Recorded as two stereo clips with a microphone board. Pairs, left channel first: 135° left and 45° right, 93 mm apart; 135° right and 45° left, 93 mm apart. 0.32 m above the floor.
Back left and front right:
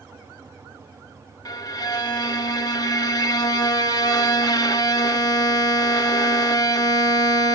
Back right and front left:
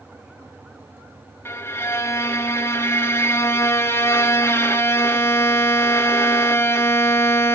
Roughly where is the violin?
Behind.